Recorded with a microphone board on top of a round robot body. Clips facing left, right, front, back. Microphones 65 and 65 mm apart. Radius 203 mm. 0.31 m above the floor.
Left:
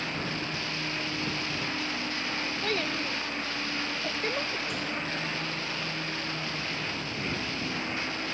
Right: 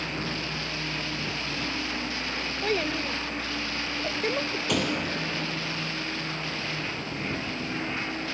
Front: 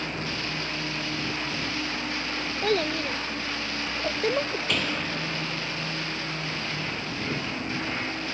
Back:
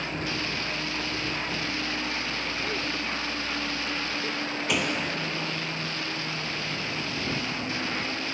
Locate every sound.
2.6 s a child speaking: 10° right
4.7 s a door slam: 100° right